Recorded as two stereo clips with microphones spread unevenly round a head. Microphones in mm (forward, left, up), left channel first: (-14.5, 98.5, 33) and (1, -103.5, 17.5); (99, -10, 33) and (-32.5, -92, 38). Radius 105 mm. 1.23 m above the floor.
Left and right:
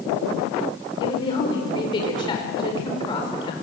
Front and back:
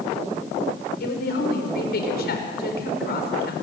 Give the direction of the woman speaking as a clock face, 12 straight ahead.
11 o'clock.